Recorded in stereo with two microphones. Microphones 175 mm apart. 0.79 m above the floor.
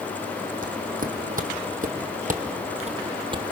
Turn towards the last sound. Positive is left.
turn(degrees=-25)  # may be behind; listen again after turning